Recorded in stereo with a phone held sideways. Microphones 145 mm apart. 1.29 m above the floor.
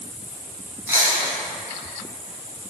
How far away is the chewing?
About 1.8 m.